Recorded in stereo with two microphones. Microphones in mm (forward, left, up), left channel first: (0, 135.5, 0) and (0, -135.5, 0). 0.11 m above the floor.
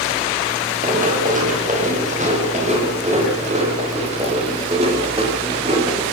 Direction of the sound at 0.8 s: 30° right (ahead or behind).